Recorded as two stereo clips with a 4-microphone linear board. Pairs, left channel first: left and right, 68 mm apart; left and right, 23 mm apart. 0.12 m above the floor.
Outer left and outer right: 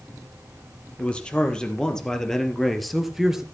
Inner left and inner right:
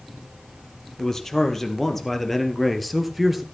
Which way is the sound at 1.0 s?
20° left (ahead or behind).